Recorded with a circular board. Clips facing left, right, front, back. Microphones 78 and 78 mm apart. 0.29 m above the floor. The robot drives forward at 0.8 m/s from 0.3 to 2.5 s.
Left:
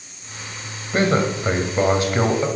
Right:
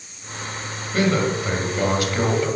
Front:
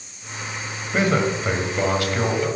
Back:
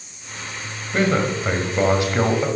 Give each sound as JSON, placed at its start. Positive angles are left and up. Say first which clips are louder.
{"t": 0.9, "sound": "a man speaking", "louder": "left 1 dB, even", "azimuth_deg": 75, "distance_m": 1.6}